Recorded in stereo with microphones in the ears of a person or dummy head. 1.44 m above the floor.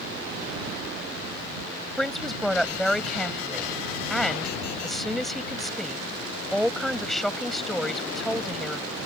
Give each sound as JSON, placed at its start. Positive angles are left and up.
{"t": 2.0, "sound": "a man speaking", "side_deg": -5}